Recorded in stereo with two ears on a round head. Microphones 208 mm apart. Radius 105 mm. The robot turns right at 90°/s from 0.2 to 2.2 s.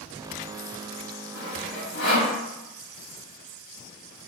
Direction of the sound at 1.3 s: 10° right (ahead or behind).